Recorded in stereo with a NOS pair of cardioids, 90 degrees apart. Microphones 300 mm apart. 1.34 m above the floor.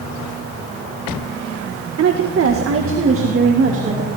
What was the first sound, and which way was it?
A woman speaking, 55° right.